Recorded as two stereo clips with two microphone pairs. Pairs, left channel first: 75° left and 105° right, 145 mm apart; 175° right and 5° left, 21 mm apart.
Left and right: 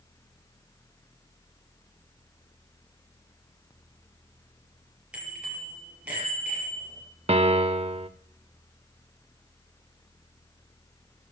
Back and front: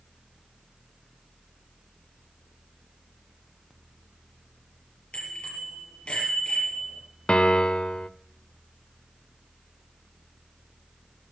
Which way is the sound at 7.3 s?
150° right.